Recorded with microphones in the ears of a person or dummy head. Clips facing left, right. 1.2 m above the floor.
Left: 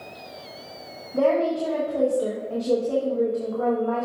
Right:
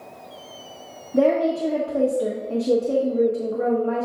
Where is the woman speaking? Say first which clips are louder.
Right 2 dB; 25° right (ahead or behind), 0.9 m.